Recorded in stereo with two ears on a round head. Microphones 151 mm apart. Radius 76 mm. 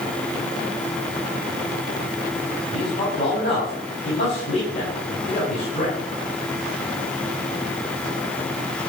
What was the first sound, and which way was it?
A man speaking, 40° left (ahead or behind).